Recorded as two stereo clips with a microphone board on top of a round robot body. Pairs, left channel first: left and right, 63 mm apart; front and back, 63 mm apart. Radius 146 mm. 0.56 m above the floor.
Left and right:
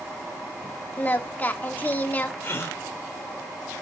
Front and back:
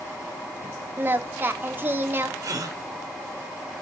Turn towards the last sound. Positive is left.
turn(degrees=145)